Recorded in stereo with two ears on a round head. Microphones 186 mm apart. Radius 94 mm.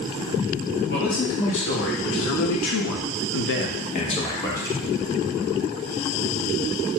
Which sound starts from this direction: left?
A man speaking, at 0.9 s.